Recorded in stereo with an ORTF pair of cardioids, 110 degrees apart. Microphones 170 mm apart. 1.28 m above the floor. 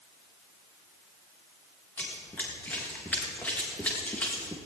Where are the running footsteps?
10° left, 5 m.